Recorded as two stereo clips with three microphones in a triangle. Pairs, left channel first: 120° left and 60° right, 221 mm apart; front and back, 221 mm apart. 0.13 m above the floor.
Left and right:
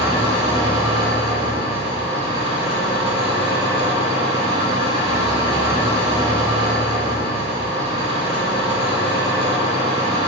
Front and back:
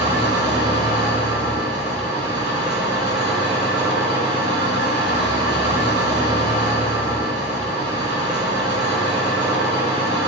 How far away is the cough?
I don't hear a cough.